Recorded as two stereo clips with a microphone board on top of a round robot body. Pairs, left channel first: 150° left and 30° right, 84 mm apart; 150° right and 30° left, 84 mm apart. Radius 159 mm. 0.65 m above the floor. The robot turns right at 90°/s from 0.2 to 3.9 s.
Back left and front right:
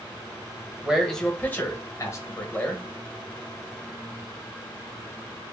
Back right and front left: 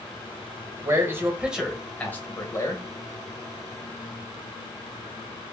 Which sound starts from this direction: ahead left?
A man speaking, at 0.8 s.